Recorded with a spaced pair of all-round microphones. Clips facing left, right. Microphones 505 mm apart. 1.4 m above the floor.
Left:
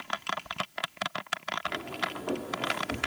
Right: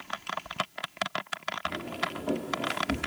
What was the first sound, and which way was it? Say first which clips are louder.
Footsteps: right 2 dB; 50° right (ahead or behind).